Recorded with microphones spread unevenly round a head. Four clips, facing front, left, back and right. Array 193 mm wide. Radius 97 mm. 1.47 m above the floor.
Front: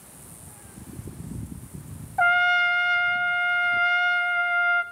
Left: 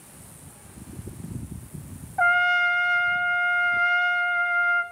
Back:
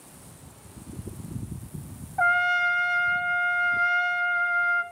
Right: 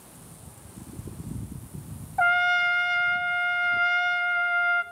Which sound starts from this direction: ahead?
A trumpet, at 2.2 s.